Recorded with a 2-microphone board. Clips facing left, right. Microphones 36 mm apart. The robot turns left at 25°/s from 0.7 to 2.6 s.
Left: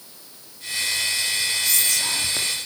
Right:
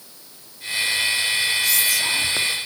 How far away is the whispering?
About 1.2 m.